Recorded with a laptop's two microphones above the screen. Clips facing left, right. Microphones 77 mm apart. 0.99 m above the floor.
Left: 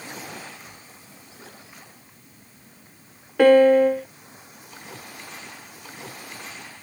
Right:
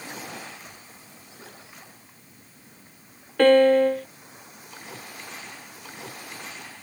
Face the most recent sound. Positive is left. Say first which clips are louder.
# left 2 dB
turn(degrees=10)  # may be behind; listen again after turning